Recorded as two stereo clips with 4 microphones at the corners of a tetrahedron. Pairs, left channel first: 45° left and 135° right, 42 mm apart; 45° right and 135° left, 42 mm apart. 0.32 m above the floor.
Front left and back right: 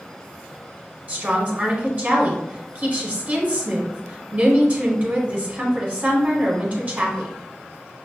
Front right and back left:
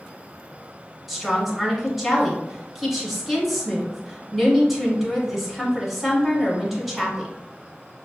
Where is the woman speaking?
140° right, 1.2 m.